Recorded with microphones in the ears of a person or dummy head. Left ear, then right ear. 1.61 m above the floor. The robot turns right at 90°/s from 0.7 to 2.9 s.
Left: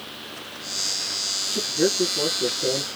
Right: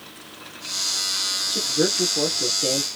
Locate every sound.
1.5 s a man speaking: 120° right, 1.2 m; by 2.9 s 5° left, 1.2 m